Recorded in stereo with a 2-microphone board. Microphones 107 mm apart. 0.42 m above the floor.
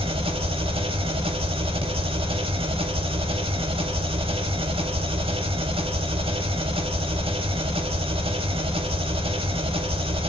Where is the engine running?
60° right (ahead or behind), 0.8 m.